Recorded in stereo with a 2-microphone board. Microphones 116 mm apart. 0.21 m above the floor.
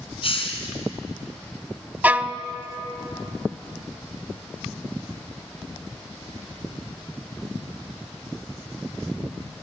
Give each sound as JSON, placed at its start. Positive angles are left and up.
{"t": 0.2, "sound": "a hiss", "side_deg": 50, "distance_m": 2.5}
{"t": 2.0, "sound": "a violin", "side_deg": -15, "distance_m": 0.6}